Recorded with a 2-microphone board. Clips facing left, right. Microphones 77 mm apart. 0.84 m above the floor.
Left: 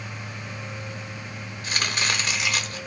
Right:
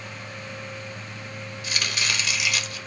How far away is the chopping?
About 0.6 m.